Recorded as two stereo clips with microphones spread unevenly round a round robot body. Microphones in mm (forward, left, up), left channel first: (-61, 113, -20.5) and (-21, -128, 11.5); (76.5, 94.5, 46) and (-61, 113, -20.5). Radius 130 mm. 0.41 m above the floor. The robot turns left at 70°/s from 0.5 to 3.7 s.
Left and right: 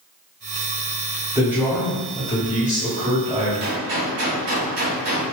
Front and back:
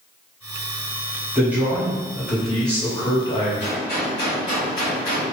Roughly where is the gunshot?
Ahead right.